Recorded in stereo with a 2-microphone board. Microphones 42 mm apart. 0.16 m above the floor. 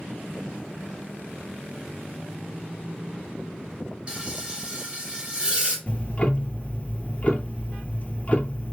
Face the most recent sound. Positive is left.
turn(degrees=35)  # may be behind; listen again after turning